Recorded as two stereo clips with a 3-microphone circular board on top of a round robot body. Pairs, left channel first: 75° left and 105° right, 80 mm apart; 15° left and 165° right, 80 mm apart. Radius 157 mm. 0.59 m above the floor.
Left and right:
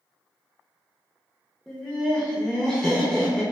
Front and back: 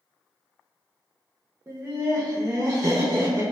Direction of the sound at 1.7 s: 150° left.